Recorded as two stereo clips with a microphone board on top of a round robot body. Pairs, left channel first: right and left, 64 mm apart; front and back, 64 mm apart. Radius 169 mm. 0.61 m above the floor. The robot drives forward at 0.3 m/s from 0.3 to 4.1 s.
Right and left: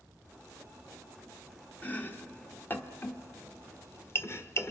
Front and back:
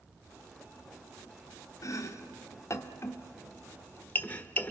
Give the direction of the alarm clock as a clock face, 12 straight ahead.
No alarm clock in this recording.